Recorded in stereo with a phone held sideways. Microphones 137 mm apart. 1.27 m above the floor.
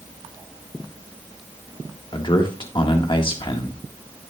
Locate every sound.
2.1 s a man speaking: 40° left (ahead or behind), 1.4 m